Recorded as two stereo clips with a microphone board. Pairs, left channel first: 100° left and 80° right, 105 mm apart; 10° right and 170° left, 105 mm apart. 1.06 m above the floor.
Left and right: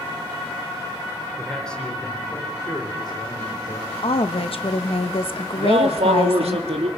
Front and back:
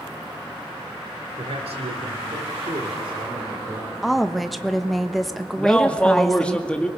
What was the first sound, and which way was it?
A man speaking, 170° right.